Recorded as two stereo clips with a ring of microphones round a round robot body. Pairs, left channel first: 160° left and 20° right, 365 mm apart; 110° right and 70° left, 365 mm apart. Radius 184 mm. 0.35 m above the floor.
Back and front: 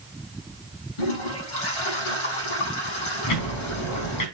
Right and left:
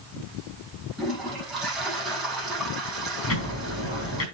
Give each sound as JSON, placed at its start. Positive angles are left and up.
{"t": 1.0, "sound": "a toilet flushing", "azimuth_deg": 160, "distance_m": 7.5}
{"t": 3.3, "sound": "ticking", "azimuth_deg": -165, "distance_m": 4.0}